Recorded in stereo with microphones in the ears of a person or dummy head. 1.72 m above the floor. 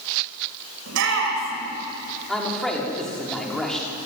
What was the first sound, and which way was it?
A shout, 70° right (ahead or behind).